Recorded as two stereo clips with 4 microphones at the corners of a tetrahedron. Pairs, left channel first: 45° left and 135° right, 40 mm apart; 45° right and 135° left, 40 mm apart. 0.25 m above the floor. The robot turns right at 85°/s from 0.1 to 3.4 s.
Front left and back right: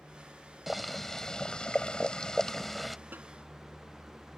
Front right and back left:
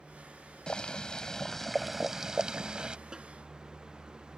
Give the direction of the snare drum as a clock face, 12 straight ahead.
5 o'clock.